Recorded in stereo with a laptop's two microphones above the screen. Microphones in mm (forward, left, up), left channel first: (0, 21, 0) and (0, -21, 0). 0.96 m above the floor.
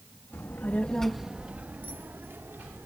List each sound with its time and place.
0.3 s a child speaking: 65° left (ahead or behind); by 2.9 s 60° right (ahead or behind)